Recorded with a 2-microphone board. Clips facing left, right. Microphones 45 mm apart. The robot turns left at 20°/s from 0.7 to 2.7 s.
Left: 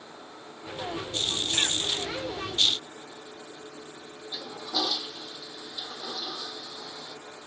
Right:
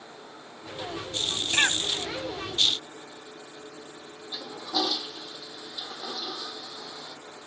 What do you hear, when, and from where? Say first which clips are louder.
1.5 s a cough: right 6 dB; 45° right (ahead or behind); by 1.8 s 50° right (ahead or behind)
4.3 s a toilet flushing: right 2 dB; 15° right (ahead or behind)